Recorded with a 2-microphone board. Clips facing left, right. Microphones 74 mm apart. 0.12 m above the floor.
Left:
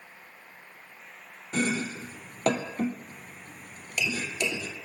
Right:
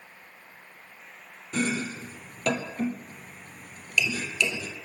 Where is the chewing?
No chewing in this recording.